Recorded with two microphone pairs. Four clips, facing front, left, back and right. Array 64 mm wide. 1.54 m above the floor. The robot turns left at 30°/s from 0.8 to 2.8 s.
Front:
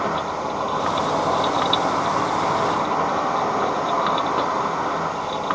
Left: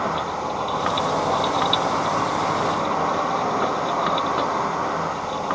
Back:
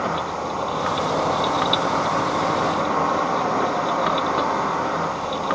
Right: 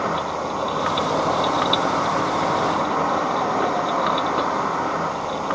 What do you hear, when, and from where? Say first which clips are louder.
0.0 s an insect: right 1 dB, front 1 dB; 110° right, 3.5 m; by 5.5 s 170° right, 3.5 m